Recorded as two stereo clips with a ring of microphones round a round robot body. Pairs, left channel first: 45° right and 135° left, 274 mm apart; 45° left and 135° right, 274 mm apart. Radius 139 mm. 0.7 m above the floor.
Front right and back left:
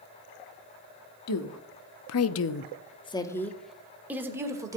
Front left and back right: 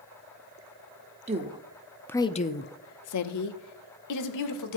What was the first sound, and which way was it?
A woman speaking, 70° right.